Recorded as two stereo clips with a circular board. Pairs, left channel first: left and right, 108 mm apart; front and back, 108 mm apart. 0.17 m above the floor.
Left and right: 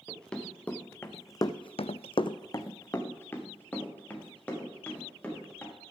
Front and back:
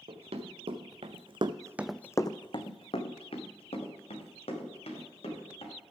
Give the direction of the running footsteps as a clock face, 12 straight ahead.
6 o'clock.